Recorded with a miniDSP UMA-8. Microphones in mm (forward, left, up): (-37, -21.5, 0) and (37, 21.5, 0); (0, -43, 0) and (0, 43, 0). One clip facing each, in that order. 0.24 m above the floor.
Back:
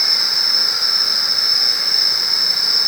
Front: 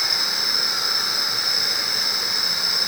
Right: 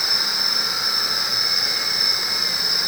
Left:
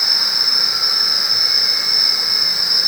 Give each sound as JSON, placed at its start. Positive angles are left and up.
{"t": 0.0, "sound": "an insect", "azimuth_deg": 145, "distance_m": 1.1}